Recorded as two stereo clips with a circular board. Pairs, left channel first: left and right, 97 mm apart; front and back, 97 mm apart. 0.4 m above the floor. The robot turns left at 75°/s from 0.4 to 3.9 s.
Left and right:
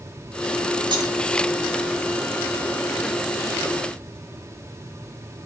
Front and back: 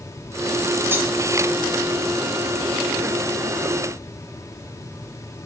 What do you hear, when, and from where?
0.9 s cutlery clinking: 115° right, 1.0 m; by 1.1 s 130° right, 1.0 m